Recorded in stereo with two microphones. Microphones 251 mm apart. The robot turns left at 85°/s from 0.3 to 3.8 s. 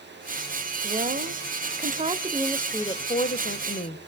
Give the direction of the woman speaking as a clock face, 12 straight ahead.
1 o'clock.